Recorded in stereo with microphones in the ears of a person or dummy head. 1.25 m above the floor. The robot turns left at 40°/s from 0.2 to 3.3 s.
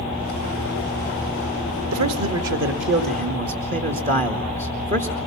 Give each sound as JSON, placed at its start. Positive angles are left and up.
{"t": 1.9, "sound": "a man speaking", "azimuth_deg": -80, "distance_m": 2.0}